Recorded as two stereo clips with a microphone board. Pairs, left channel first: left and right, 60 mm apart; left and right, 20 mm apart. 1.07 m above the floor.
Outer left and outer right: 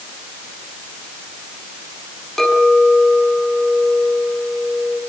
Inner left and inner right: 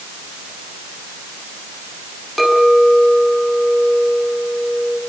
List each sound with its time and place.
2.4 s a clink: 5° left (ahead or behind), 7 m